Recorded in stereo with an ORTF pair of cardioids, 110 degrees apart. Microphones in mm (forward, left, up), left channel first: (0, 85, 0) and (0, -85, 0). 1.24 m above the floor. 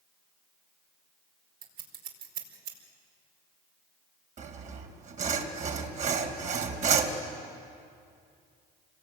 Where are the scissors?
70° right, 4.5 m.